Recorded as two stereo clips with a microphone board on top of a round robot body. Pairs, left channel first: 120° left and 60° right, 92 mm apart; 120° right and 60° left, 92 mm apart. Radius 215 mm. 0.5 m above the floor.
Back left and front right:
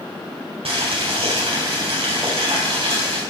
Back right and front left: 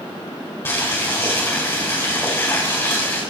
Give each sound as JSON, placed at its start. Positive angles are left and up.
{"t": 0.7, "sound": "boiling", "azimuth_deg": -55, "distance_m": 5.0}